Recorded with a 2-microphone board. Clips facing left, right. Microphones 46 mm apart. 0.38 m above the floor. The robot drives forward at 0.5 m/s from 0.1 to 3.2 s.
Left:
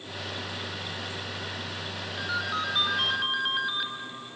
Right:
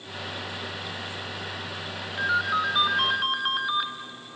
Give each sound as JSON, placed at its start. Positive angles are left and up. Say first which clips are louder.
{"t": 2.2, "sound": "a ringtone", "louder": "right 6 dB", "side_deg": -20, "distance_m": 0.8}